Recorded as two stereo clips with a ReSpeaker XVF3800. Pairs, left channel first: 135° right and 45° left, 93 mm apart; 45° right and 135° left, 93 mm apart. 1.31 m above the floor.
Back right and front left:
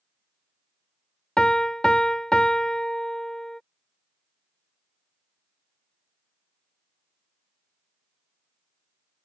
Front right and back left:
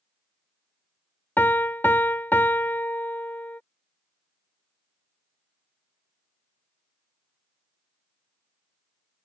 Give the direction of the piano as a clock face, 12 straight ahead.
2 o'clock.